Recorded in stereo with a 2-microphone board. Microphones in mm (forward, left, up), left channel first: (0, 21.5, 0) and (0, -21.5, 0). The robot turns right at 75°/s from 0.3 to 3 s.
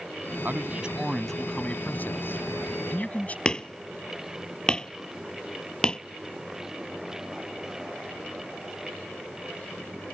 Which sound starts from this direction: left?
Hammering, at 3.5 s.